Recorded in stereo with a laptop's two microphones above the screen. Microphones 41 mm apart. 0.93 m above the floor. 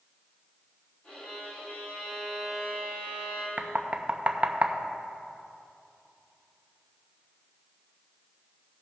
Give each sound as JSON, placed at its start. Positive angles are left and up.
{"t": 1.0, "sound": "a violin", "side_deg": 30, "distance_m": 3.5}
{"t": 3.6, "sound": "knocking", "side_deg": -40, "distance_m": 0.5}